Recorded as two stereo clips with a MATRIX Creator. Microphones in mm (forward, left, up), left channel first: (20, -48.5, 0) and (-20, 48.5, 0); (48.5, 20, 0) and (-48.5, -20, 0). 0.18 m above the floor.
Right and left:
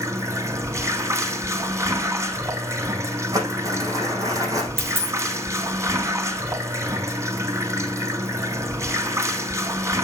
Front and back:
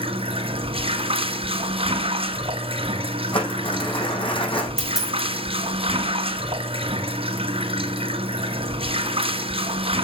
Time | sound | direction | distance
0.0 | running water | 175° left | 1.4 m
3.3 | crumpling | 55° left | 5.5 m
4.8 | a dropped coin | 80° left | 3 m